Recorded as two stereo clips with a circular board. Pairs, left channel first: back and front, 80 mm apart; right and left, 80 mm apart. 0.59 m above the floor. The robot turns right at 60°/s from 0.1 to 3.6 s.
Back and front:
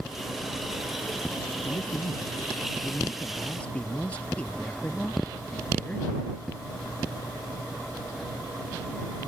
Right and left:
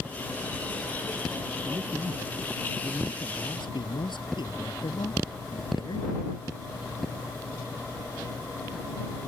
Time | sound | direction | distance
1.6 | a man speaking | 140° left | ?